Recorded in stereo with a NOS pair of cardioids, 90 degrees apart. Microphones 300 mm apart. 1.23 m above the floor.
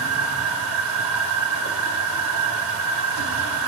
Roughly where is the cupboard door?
I don't hear a cupboard door.